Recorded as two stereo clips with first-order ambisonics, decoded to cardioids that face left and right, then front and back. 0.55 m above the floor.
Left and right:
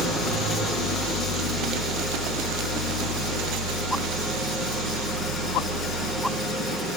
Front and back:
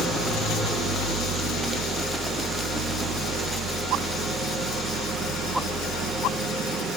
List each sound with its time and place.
0.0 s an engine running: 130° right, 3.5 m